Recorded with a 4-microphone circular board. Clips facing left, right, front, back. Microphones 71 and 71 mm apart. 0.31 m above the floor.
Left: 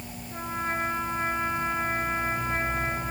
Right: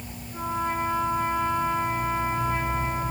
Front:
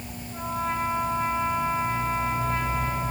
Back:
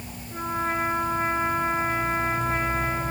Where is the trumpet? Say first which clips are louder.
Right 3 dB, back 2 dB; 145° left, 4 m.